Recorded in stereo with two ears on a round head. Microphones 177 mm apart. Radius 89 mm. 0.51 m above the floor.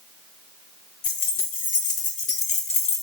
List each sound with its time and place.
1.0 s keys jangling: 50° left (ahead or behind), 3.5 m; by 3.0 s 30° left (ahead or behind), 1.7 m